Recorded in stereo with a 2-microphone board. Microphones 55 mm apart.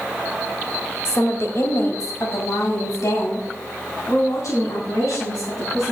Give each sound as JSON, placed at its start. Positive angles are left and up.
{"t": 1.1, "sound": "a woman speaking", "side_deg": 45, "distance_m": 1.6}